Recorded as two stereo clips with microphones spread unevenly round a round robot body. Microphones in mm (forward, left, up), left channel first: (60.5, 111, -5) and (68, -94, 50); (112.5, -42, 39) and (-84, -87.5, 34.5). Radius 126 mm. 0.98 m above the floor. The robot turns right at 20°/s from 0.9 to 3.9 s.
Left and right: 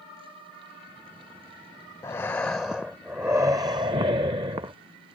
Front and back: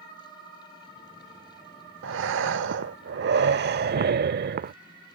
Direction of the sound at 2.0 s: Straight behind.